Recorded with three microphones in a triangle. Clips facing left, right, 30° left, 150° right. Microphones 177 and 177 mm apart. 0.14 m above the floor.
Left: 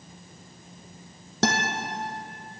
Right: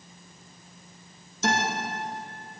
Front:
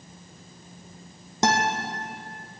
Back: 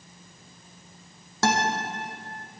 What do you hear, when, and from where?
1.4 s a guitar: 100° left, 1.8 m